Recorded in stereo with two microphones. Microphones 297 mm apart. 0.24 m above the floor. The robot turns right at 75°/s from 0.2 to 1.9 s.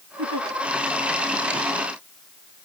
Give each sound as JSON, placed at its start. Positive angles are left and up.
{"t": 0.2, "sound": "a giggle", "side_deg": -85}